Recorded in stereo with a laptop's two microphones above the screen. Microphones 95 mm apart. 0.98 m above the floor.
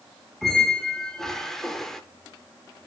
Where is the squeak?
5° left (ahead or behind), 0.8 m.